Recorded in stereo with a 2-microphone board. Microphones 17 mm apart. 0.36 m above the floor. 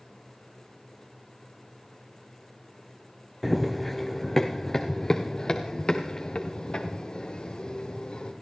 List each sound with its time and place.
3.4 s running footsteps: 5° right (ahead or behind), 1.4 m; by 8.3 s 60° left (ahead or behind), 3.5 m